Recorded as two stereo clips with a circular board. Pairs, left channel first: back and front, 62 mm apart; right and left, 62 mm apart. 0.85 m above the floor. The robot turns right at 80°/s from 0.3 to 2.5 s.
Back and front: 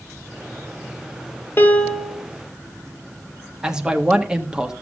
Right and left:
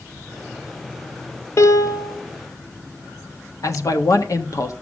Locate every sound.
1.6 s a piano: 130° right, 1.5 m; by 2.2 s 85° right, 1.5 m
3.6 s a man speaking: 75° right, 1.4 m